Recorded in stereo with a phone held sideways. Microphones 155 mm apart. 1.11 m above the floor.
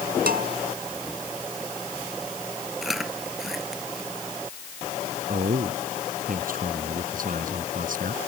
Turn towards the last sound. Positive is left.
turn(degrees=-65)  # may be behind; listen again after turning